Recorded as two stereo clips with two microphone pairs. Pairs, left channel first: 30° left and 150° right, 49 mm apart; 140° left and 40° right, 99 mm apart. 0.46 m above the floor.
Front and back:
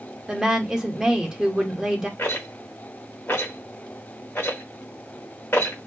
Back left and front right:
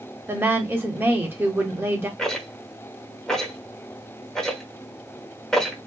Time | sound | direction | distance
0.3 | a woman speaking | 90° right | 0.9 m
2.2 | a rattle | 60° left | 0.9 m